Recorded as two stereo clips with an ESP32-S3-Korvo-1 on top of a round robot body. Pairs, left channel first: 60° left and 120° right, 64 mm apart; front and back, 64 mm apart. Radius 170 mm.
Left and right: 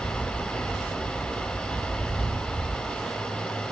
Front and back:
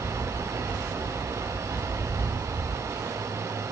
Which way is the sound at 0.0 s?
135° left.